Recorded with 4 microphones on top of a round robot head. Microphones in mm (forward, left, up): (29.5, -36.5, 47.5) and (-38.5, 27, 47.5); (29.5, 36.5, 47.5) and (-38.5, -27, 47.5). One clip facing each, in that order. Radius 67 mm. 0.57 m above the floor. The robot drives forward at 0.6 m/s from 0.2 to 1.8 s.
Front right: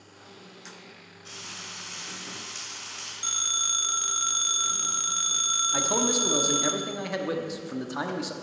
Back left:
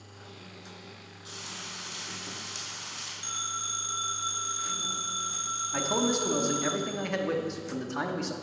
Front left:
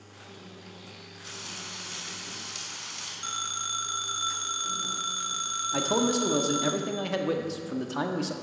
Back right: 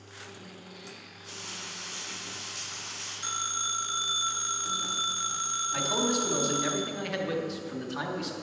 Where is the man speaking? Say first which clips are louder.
Even, front left 4 dB; 30° left, 1.1 m.